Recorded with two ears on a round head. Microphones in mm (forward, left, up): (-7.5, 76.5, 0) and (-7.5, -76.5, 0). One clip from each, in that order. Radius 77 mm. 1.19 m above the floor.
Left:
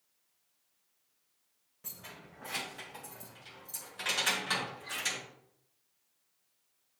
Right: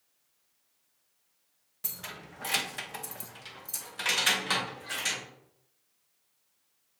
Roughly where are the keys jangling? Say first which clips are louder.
Right 7 dB; right.